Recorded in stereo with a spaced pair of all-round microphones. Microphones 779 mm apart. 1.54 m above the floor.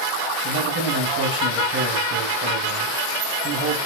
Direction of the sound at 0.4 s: 15° right (ahead or behind).